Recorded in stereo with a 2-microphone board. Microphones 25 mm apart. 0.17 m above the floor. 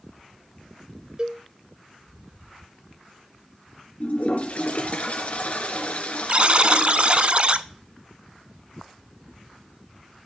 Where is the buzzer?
45° right (ahead or behind), 0.6 m.